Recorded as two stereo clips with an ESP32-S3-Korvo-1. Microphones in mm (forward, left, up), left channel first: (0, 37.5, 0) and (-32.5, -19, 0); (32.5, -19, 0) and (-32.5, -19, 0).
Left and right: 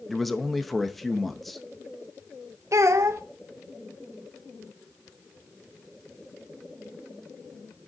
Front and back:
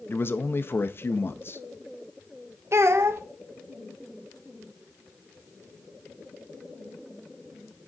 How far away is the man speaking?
About 0.5 m.